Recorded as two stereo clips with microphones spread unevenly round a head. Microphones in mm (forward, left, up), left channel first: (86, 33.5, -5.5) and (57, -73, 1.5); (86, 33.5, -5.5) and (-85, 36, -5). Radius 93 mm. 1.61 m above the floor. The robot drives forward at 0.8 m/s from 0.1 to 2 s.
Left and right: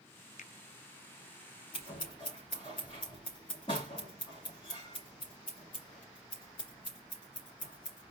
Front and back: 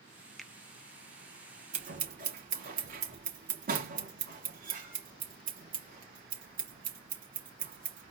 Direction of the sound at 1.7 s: 140° left.